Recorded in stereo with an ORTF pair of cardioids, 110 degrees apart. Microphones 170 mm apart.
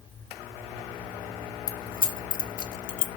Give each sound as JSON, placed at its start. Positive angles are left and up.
{"t": 1.7, "sound": "keys jangling", "azimuth_deg": 55, "distance_m": 1.3}